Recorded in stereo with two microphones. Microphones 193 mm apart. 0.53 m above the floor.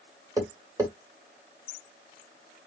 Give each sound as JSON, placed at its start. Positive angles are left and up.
{"t": 0.4, "sound": "tapping", "side_deg": -15, "distance_m": 1.8}